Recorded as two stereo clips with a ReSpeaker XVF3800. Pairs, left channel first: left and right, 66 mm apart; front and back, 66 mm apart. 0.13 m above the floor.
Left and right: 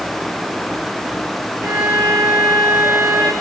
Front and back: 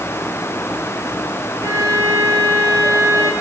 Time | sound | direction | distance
1.6 | a violin | 145° right | 3 m